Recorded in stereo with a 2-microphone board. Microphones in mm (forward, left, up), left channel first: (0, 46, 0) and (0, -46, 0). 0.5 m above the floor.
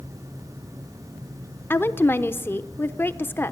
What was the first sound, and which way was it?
A woman speaking, 25° left (ahead or behind).